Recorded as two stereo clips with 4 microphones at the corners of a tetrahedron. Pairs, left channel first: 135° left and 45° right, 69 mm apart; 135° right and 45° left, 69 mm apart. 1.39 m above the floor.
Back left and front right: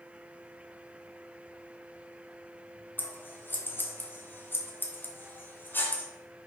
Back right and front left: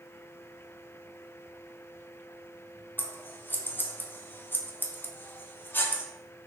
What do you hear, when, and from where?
3.0 s scissors: straight behind, 0.5 m